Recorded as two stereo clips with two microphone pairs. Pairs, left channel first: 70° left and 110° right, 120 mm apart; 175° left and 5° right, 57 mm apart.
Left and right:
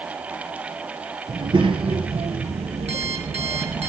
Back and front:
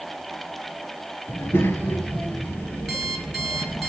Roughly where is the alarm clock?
Right.